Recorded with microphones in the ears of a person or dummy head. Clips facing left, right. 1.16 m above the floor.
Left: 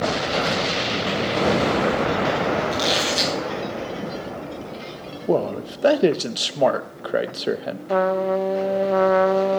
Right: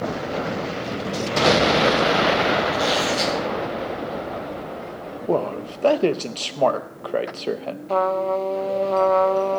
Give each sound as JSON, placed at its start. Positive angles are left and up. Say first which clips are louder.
{"t": 2.7, "sound": "a squeak", "louder": "right 1 dB", "side_deg": 50, "distance_m": 4.0}
{"t": 5.3, "sound": "a man speaking", "louder": "left 1 dB", "side_deg": 15, "distance_m": 0.7}
{"t": 7.9, "sound": "a trumpet", "louder": "left 1 dB", "side_deg": 10, "distance_m": 0.5}